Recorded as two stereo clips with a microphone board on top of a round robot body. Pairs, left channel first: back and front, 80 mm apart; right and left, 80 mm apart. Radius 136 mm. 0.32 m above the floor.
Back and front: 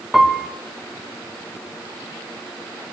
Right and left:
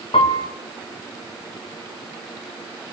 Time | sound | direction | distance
0.1 | a piano | 85° right | 0.6 m